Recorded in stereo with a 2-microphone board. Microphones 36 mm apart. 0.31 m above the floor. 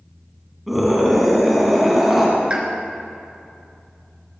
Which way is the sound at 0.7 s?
5° right (ahead or behind).